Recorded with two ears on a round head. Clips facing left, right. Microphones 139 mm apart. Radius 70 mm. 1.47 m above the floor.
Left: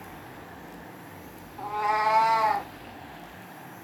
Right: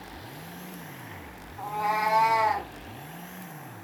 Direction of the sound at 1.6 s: Centre (ahead or behind).